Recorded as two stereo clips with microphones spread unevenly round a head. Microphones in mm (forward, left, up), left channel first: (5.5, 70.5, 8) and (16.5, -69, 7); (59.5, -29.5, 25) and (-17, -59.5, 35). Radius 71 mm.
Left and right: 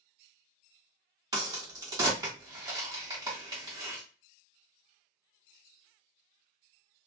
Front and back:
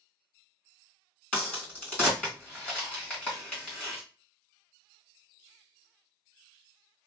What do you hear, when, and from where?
1.3 s a crack: 55° right, 1.6 m